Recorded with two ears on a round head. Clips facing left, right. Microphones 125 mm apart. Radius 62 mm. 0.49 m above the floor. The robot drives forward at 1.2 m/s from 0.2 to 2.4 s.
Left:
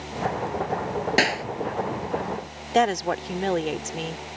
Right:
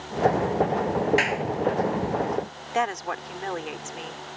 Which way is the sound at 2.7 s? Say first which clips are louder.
Left 5 dB; 40° left (ahead or behind).